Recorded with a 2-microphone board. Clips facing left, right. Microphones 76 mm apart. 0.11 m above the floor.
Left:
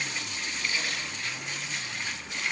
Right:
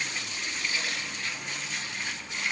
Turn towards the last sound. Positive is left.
No sound to turn to.